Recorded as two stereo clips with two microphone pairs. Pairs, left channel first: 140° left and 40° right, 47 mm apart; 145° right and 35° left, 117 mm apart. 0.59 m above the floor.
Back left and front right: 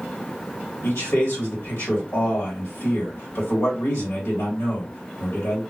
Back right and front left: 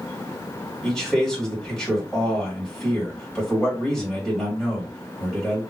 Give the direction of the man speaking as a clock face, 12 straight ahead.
8 o'clock.